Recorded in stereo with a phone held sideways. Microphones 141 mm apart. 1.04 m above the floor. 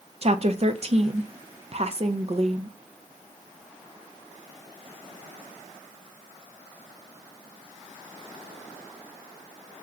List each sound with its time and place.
0.2 s a woman speaking: 45° right (ahead or behind), 0.6 m